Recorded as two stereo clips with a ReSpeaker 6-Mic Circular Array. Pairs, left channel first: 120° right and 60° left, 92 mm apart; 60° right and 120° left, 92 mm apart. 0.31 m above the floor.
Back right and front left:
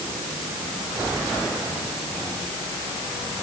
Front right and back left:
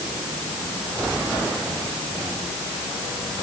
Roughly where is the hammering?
I don't hear hammering.